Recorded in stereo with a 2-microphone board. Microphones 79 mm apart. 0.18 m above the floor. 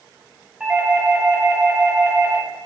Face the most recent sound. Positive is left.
turn(degrees=-15)  # may be behind; listen again after turning